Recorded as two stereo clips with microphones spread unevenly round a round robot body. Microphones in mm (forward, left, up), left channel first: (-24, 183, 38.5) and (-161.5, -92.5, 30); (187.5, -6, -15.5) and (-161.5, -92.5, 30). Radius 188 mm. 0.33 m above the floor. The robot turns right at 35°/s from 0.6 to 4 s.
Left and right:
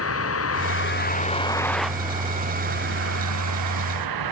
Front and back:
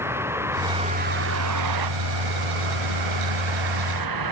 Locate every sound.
0.0 s a vehicle: 110° left; by 4.3 s 130° right